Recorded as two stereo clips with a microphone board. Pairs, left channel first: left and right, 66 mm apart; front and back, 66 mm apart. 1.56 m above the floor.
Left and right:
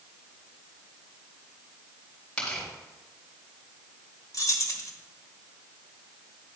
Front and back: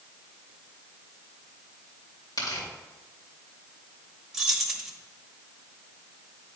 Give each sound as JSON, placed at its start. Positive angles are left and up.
{"t": 2.4, "sound": "tearing paper", "azimuth_deg": 10, "distance_m": 2.5}
{"t": 4.3, "sound": "keys jangling", "azimuth_deg": 100, "distance_m": 1.0}